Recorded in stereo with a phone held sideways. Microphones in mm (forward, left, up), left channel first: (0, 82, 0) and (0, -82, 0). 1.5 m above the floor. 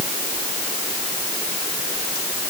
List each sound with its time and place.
Only background noise.